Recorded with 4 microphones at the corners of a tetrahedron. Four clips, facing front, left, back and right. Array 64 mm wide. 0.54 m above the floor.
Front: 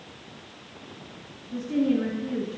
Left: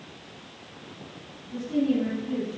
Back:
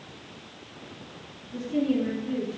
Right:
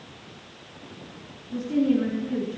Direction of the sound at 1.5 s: 30° right.